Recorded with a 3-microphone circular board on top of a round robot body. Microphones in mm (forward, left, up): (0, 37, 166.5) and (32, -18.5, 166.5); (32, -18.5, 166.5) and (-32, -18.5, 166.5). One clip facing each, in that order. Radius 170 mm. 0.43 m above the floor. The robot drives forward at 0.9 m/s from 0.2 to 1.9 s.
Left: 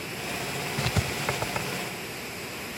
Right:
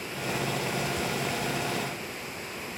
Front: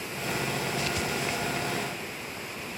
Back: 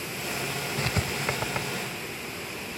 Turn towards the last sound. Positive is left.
turn(degrees=145)